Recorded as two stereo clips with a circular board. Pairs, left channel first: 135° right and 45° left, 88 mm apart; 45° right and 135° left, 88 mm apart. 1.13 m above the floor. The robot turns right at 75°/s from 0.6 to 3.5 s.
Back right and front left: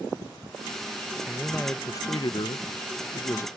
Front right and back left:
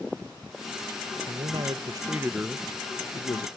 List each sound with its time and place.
1.3 s a man speaking: 125° left; by 3.5 s 70° right